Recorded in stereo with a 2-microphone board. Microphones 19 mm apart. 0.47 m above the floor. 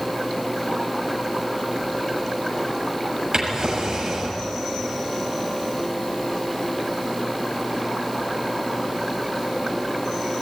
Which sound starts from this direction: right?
A drawer, at 3.3 s.